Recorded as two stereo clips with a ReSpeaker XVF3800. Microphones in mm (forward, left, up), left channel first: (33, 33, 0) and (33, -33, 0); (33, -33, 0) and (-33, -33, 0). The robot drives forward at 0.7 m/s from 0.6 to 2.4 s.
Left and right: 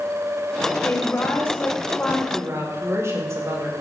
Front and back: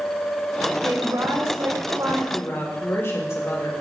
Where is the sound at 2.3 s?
45° right, 4 m.